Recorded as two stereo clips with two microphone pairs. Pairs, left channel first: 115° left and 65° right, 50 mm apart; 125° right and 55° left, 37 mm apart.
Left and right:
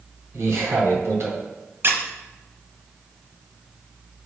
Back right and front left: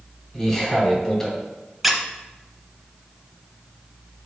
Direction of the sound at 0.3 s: 50° right.